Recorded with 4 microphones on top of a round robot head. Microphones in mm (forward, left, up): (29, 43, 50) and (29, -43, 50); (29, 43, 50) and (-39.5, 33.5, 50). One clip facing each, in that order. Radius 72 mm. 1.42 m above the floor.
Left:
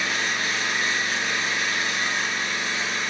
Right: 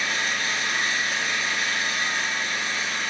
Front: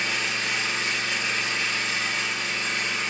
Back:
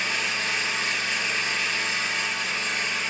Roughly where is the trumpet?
No trumpet in this recording.